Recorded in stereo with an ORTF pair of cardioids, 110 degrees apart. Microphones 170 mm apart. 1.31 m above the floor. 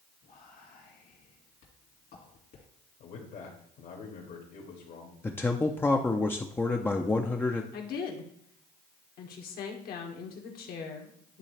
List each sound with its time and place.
0.2 s whispering: 55° left, 2 m
3.0 s a man speaking: 60° left, 1.8 m
5.2 s a man speaking: 10° left, 0.5 m
7.7 s a woman speaking: 65° left, 1.6 m